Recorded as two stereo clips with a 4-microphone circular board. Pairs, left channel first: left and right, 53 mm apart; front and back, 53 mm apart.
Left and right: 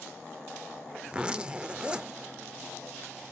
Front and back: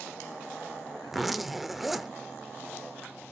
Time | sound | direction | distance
1.1 | a zipper | 100° right | 0.7 m